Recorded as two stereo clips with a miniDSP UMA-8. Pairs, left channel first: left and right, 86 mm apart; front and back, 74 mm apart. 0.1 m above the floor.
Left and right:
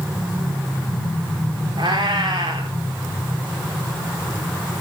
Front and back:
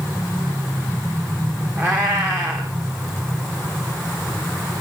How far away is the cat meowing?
About 5 m.